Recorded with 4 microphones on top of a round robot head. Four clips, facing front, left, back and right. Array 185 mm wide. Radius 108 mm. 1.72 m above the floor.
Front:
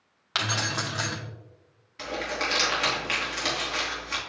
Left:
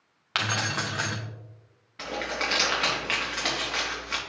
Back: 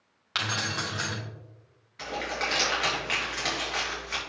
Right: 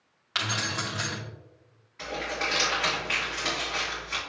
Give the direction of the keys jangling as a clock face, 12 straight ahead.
10 o'clock.